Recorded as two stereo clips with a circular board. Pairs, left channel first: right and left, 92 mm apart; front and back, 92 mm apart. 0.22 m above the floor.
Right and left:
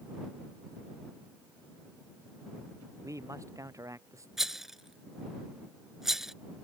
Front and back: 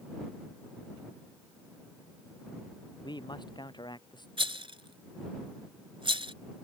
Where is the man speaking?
35° left.